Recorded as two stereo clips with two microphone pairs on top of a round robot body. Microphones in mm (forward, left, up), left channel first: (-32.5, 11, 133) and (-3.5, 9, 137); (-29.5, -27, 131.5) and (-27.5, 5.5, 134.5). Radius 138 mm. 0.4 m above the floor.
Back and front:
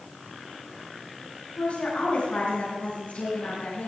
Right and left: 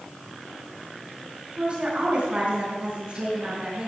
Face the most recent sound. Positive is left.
turn(degrees=145)